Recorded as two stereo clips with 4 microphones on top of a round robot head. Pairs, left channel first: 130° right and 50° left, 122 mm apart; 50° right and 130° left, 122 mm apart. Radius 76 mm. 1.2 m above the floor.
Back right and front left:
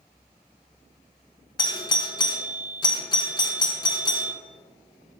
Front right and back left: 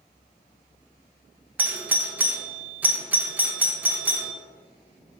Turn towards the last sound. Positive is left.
turn(degrees=-160)